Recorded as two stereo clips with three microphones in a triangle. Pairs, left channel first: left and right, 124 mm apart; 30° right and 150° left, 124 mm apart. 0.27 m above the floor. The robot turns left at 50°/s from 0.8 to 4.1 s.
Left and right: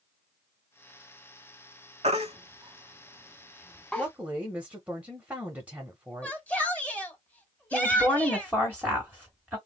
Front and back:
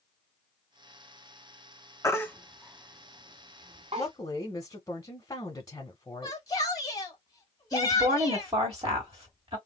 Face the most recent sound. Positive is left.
turn(degrees=-165)